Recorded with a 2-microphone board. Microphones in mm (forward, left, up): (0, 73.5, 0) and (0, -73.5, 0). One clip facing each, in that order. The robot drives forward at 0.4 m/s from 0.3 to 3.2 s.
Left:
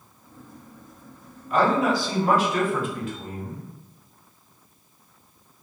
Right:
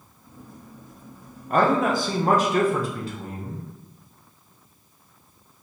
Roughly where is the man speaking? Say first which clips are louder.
Right 1 dB; right.